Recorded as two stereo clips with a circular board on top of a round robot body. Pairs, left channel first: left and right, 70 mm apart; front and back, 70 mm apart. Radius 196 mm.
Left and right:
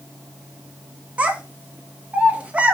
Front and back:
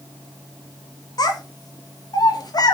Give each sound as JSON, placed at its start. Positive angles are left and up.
{"t": 1.2, "sound": "a child speaking", "azimuth_deg": -20, "distance_m": 1.1}